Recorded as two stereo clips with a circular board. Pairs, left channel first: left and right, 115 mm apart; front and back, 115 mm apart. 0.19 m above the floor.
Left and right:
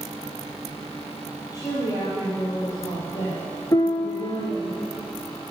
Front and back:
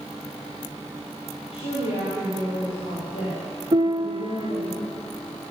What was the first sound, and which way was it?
A woman speaking, 35° left.